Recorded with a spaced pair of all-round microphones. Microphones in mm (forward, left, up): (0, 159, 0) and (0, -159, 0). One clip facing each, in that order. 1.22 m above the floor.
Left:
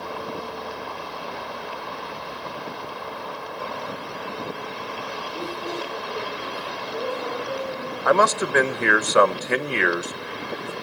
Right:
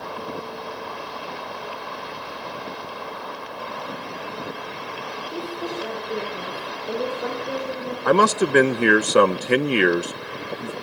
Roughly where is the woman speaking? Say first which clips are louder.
Right 2 dB; right.